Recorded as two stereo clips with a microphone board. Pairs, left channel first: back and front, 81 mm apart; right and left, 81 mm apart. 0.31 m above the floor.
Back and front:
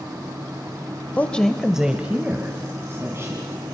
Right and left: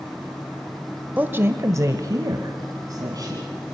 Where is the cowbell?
I don't hear a cowbell.